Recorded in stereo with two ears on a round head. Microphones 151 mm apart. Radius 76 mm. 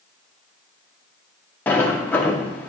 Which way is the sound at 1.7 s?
10° left (ahead or behind).